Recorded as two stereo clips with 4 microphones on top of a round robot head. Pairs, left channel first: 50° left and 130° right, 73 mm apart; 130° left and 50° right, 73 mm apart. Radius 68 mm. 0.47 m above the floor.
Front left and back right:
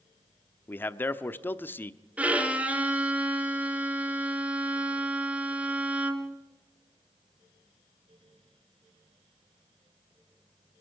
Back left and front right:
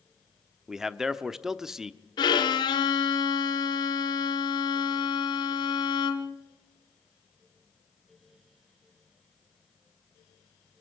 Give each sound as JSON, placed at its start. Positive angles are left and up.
{"t": 0.7, "sound": "a man speaking", "azimuth_deg": 25, "distance_m": 0.9}
{"t": 2.2, "sound": "a violin", "azimuth_deg": 155, "distance_m": 1.5}